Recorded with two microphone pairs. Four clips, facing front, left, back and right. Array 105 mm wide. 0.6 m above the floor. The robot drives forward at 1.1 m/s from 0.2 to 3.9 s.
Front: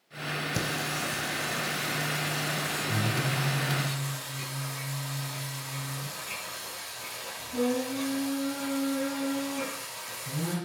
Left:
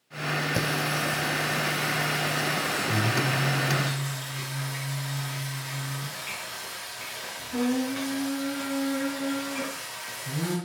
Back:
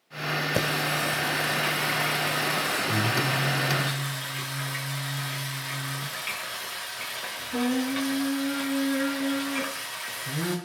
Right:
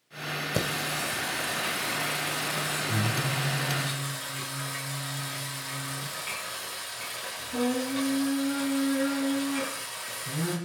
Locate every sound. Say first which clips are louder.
0.5 s singing: left 3 dB, back 6 dB; 165° right, 1.7 m; by 10.5 s 175° right, 5.5 m